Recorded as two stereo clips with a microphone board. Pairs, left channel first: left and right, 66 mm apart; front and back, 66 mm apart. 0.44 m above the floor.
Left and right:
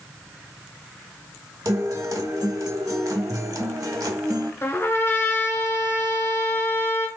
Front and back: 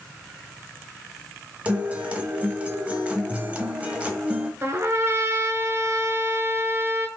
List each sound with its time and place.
1.6 s a guitar: 115° right, 0.9 m
4.6 s a trumpet: 135° left, 0.7 m